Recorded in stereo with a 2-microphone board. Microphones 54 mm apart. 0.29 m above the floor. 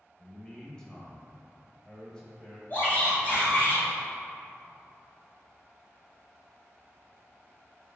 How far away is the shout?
About 1.8 m.